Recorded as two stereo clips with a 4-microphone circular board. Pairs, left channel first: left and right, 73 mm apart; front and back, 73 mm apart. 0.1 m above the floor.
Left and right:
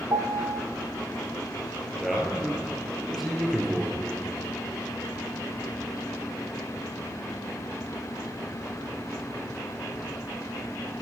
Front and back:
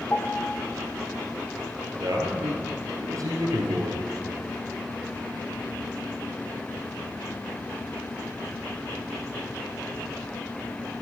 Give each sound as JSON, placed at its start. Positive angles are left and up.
{"t": 0.1, "sound": "a piano", "azimuth_deg": -65, "distance_m": 1.0}
{"t": 2.0, "sound": "a man speaking", "azimuth_deg": -175, "distance_m": 2.0}